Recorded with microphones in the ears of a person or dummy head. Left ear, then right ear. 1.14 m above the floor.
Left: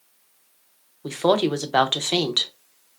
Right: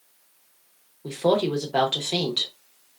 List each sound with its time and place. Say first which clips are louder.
1.0 s a woman speaking: left 2 dB; 40° left (ahead or behind), 0.5 m